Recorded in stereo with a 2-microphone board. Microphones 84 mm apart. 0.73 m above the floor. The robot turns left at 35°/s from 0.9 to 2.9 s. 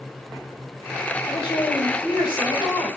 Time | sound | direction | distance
1.2 | a woman speaking | 115° left | 5 m